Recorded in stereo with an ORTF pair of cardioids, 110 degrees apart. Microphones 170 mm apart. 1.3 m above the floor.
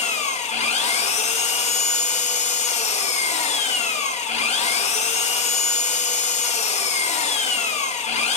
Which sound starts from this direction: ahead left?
An engine running, at 0.0 s.